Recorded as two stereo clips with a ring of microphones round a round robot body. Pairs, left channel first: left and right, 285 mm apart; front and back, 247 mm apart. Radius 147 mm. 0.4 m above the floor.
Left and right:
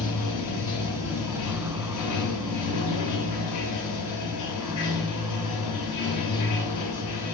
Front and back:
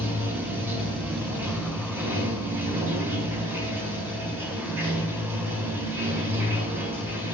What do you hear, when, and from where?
0.0 s running water: 100° left, 1.0 m